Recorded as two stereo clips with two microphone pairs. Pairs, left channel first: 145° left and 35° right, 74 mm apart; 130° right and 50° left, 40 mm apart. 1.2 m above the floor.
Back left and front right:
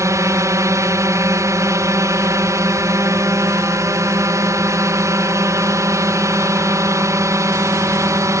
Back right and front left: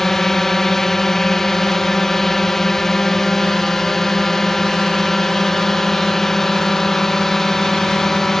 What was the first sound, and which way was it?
A drone, 55° right.